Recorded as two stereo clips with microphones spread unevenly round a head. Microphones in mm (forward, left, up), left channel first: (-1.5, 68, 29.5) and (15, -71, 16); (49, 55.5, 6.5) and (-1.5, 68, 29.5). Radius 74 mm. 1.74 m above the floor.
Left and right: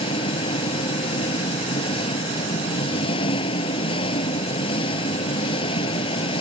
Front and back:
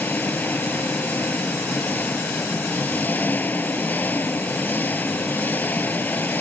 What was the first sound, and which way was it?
An engine running, 40° left.